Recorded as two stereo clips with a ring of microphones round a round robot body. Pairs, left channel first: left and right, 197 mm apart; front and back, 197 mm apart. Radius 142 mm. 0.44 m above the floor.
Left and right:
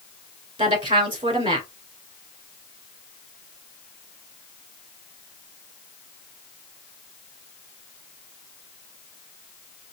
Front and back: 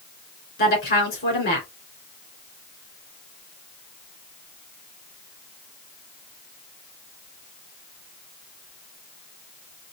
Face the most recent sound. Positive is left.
turn(degrees=-30)